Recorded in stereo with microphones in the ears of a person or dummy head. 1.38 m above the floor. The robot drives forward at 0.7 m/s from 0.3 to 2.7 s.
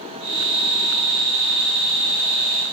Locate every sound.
Only background noise.